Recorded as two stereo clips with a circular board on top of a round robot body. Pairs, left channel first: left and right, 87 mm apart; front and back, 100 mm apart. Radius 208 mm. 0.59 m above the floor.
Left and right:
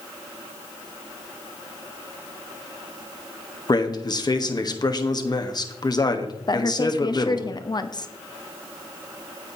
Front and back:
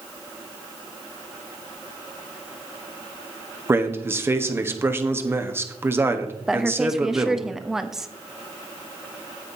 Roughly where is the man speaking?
Behind left.